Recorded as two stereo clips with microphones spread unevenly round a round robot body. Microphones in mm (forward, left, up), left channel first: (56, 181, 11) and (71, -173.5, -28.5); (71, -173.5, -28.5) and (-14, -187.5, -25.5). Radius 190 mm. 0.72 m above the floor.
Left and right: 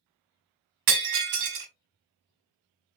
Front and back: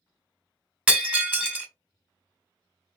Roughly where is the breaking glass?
Right.